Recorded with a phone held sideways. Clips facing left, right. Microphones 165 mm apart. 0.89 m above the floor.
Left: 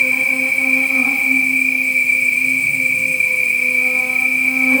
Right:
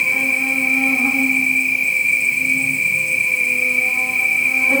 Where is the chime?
I don't hear a chime.